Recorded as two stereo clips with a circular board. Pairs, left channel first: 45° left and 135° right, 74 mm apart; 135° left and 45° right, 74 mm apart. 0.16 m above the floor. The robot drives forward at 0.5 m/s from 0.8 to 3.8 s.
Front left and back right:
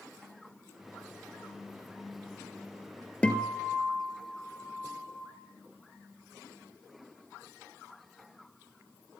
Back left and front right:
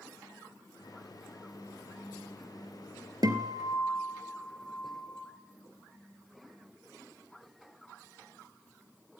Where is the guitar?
30° right, 2 m; by 5.2 s 35° right, 1.9 m.